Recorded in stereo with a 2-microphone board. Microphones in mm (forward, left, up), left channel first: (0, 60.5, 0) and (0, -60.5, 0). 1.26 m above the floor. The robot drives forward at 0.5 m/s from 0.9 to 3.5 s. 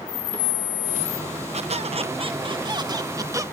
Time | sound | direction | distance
1.5 | a squeak | 60° right (ahead or behind) | ?